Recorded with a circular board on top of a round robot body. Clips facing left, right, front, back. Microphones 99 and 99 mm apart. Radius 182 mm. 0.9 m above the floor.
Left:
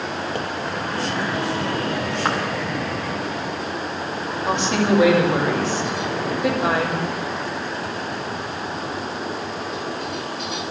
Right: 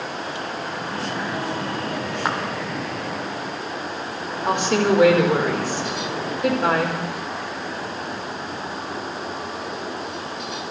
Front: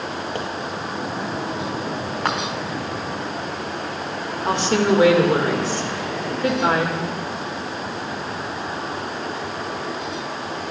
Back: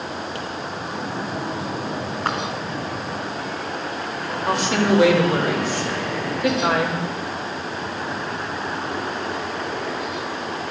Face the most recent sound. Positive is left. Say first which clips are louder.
# right 1 dB, front 1 dB
turn(degrees=-55)